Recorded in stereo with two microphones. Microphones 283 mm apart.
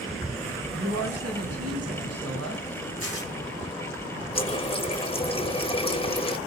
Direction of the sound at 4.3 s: 20° left (ahead or behind).